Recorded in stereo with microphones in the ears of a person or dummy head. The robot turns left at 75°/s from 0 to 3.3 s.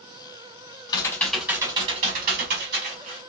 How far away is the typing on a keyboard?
About 1.1 m.